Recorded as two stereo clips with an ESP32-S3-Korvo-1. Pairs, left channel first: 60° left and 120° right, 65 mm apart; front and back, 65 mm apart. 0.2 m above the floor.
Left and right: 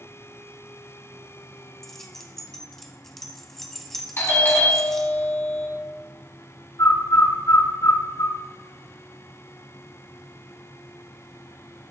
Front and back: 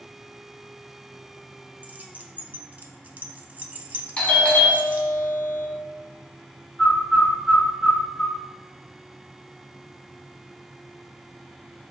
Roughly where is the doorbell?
Ahead left.